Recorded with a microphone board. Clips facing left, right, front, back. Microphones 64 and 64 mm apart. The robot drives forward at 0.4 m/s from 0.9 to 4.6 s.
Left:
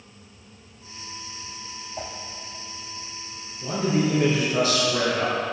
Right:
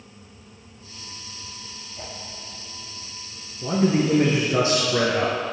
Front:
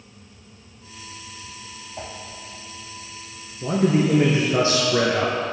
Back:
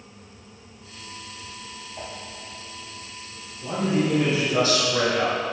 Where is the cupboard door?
No cupboard door in this recording.